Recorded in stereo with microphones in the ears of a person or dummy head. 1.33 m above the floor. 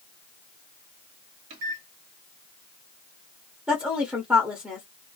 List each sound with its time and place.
1.5 s a microwave: 70° right (ahead or behind), 1.3 m
3.7 s a woman speaking: 5° right (ahead or behind), 0.7 m